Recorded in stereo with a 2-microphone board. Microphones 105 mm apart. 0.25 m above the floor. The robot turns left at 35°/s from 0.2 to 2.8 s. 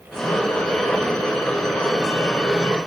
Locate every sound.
Only background noise.